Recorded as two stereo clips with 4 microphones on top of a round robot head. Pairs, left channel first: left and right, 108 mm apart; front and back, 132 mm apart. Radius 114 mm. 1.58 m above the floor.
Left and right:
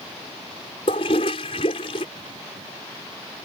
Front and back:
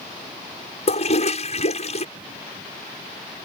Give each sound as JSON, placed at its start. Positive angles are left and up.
{"t": 0.9, "sound": "a toilet flushing", "azimuth_deg": 35}